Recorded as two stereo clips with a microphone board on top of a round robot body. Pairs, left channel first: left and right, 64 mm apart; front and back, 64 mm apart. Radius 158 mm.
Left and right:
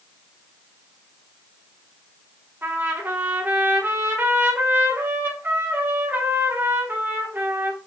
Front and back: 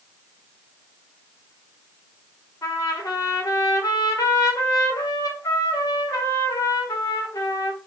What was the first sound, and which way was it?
A trumpet, 30° right.